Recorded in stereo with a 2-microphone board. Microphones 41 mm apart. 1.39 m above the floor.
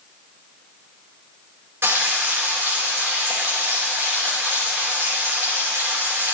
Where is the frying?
85° right, 4.5 m.